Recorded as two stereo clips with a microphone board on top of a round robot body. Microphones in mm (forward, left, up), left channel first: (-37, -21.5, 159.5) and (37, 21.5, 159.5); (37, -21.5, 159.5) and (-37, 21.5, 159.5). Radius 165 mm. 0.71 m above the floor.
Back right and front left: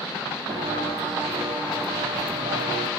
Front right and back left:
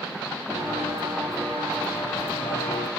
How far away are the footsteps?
About 2 m.